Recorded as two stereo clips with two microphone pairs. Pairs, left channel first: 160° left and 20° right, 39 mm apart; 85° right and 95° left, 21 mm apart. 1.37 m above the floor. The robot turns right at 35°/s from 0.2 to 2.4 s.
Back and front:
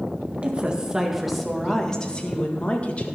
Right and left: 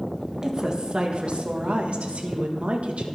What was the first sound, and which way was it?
A woman speaking, 35° left.